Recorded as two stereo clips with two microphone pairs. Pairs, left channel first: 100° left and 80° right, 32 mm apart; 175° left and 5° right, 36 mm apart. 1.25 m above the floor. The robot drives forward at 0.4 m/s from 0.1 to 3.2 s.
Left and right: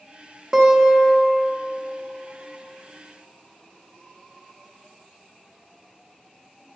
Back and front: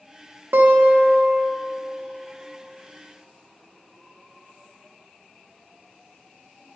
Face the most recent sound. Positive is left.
turn(degrees=-145)